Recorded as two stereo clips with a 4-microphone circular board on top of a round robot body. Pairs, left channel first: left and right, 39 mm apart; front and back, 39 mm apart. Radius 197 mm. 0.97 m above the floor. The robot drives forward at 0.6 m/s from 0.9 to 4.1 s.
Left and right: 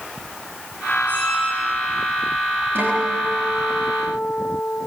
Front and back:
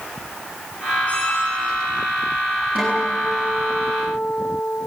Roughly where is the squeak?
Ahead left.